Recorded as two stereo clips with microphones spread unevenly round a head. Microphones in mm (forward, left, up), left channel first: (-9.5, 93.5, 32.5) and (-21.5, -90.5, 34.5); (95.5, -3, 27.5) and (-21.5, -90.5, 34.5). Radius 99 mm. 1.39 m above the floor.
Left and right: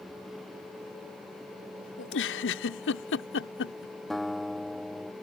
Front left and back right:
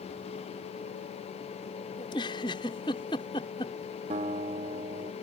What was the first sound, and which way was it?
A giggle, 105° left.